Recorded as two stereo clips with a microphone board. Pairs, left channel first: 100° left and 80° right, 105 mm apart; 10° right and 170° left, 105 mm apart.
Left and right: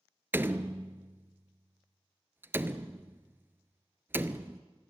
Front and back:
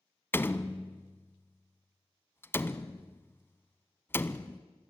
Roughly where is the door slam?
Ahead right.